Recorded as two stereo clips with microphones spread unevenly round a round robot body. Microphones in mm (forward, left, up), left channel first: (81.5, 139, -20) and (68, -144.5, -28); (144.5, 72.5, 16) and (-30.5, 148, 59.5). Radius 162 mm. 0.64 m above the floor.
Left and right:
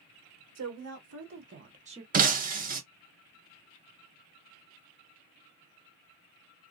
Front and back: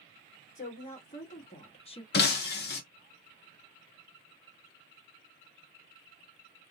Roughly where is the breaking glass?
Ahead right.